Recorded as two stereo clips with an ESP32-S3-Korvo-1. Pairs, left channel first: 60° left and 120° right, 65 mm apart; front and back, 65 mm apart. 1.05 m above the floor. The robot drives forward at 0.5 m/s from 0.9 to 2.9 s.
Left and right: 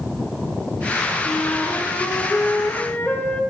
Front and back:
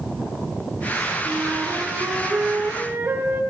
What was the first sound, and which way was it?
A flute, 110° left.